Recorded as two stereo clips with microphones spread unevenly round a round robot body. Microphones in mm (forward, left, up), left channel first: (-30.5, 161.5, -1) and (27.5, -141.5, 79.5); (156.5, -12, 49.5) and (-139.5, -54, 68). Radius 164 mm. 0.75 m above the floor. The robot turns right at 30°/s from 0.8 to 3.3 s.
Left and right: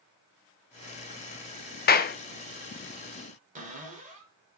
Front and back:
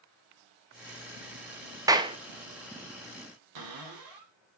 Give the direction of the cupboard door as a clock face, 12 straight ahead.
5 o'clock.